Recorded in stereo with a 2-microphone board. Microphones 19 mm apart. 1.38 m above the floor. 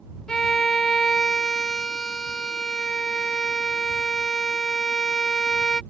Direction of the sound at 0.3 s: 40° left (ahead or behind).